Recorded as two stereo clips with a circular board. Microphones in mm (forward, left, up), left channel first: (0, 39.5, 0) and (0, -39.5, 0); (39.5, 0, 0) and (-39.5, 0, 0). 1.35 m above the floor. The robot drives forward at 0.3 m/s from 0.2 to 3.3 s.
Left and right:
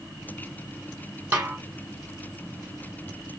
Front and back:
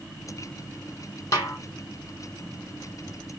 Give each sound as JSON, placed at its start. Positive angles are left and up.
{"t": 1.3, "sound": "a snare drum", "azimuth_deg": -30, "distance_m": 1.5}